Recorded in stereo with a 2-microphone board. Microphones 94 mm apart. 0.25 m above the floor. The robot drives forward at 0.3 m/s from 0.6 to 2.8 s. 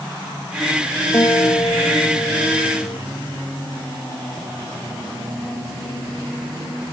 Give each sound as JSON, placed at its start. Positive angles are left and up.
{"t": 1.1, "sound": "a guitar", "side_deg": 35}